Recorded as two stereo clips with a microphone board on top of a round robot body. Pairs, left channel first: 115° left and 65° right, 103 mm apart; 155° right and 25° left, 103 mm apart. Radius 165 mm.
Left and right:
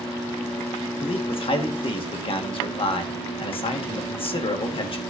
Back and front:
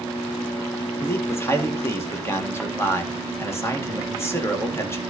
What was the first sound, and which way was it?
A man speaking, 140° left.